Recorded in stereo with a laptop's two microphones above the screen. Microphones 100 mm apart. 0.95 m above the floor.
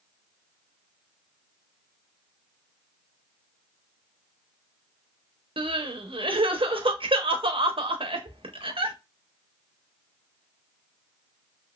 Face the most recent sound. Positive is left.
turn(degrees=-60)  # may be behind; listen again after turning